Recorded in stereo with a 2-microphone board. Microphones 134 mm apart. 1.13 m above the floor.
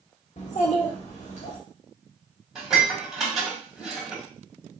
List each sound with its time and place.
0.4 s a child speaking: 60° left (ahead or behind), 0.7 m; by 1.6 s 70° left (ahead or behind), 1.5 m
2.5 s dishes clattering: centre (ahead or behind), 2.5 m